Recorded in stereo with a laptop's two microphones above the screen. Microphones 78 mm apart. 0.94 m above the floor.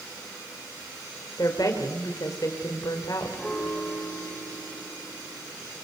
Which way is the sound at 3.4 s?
10° left (ahead or behind).